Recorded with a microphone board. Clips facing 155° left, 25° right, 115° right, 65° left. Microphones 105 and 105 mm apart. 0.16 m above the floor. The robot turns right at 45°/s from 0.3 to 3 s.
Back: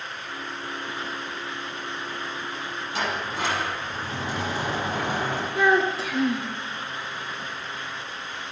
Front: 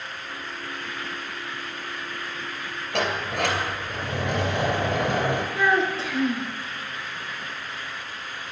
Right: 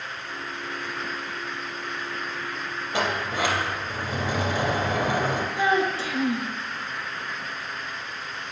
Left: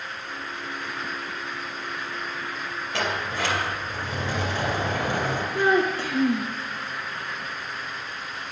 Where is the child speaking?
70° left, 1.7 m.